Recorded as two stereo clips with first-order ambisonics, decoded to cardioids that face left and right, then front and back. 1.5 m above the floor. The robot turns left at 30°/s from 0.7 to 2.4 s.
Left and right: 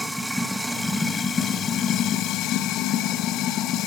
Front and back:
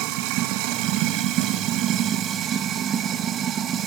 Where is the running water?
Straight behind, 1.3 m; by 3.9 s 130° left, 1.3 m.